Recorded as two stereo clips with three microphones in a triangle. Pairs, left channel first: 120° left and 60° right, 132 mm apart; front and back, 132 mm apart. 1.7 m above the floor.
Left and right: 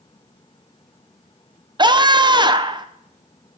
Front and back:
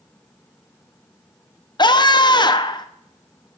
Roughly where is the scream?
Ahead right.